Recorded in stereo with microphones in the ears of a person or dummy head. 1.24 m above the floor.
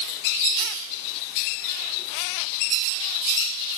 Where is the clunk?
I don't hear a clunk.